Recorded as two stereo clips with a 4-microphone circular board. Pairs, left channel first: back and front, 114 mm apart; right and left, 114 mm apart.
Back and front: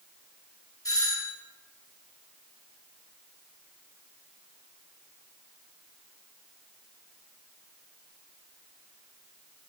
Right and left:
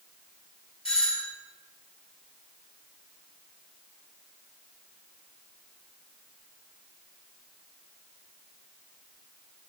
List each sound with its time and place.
0.8 s a doorbell: 125° right, 1.4 m